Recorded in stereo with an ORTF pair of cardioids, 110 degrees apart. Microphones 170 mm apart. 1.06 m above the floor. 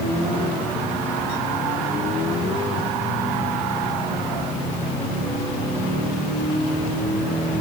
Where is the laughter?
No laughter in this recording.